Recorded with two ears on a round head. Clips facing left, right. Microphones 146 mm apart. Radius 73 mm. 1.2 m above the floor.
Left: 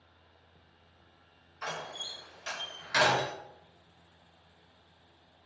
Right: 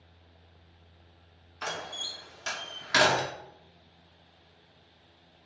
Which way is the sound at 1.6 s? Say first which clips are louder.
Right 2 dB; 60° right (ahead or behind).